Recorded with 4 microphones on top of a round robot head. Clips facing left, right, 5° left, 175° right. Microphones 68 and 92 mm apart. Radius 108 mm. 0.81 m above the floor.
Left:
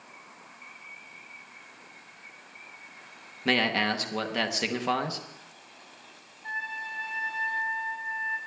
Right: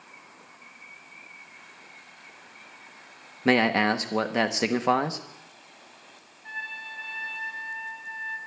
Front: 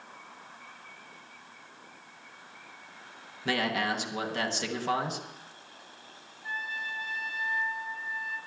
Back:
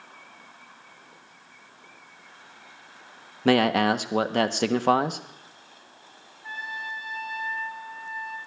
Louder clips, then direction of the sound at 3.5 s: Right 5 dB, back 10 dB; 155° right.